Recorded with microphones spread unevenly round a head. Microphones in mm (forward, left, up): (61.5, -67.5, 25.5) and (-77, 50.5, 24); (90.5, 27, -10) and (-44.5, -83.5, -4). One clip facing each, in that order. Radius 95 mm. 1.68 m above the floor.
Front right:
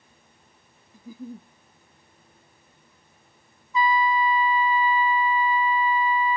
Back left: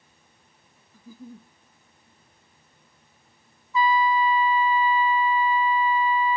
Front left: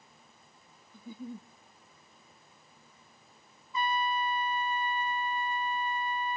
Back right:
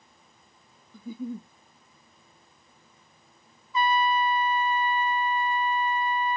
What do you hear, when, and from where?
0.9 s a giggle: 115° right, 0.5 m
3.7 s a trumpet: 115° right, 0.7 m